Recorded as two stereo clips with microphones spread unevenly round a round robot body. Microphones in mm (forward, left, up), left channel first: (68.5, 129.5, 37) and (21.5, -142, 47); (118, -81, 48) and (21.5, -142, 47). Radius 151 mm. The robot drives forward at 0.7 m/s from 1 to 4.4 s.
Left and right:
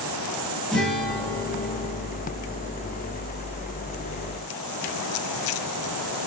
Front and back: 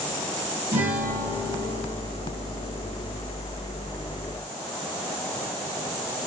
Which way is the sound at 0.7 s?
170° left.